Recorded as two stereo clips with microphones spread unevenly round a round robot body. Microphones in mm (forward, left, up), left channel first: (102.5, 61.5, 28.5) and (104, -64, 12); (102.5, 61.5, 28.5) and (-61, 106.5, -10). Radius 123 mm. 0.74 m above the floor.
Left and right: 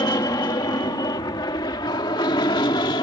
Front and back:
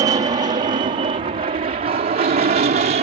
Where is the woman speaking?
No woman speaking in this recording.